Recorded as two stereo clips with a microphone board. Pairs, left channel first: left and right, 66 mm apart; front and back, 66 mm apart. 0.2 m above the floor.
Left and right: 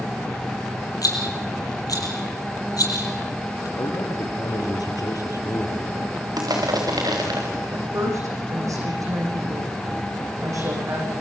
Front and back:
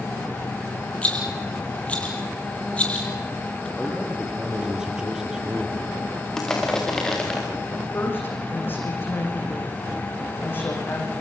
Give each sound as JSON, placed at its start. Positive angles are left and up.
{"t": 1.0, "sound": "a rattle", "azimuth_deg": 75, "distance_m": 5.5}
{"t": 3.8, "sound": "a man speaking", "azimuth_deg": 105, "distance_m": 4.0}
{"t": 6.4, "sound": "crushing", "azimuth_deg": -80, "distance_m": 6.0}
{"t": 7.7, "sound": "a woman speaking", "azimuth_deg": -55, "distance_m": 9.5}